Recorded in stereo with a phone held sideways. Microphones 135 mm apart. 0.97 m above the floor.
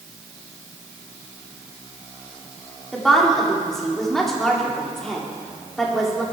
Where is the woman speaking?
5° left (ahead or behind), 2.5 m.